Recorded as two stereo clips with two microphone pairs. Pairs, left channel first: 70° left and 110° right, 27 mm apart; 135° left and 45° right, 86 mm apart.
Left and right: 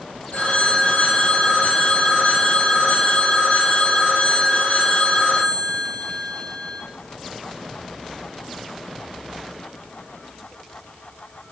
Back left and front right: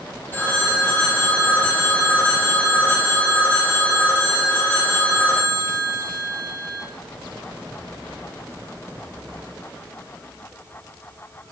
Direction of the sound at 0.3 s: 70° left.